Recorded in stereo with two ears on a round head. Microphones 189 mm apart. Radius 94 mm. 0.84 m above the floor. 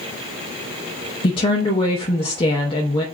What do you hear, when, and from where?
1.2 s a woman speaking: 25° left (ahead or behind), 0.8 m